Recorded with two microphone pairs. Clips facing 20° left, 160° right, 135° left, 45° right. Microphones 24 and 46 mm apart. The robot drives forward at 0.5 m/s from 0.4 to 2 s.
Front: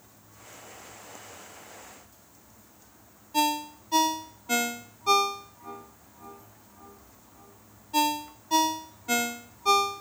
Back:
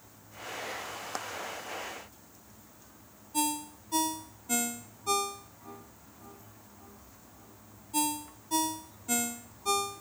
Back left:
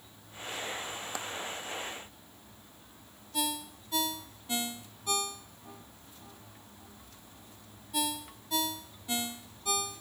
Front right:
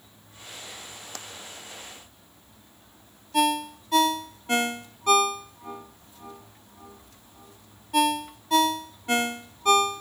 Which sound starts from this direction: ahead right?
A ringtone, at 3.3 s.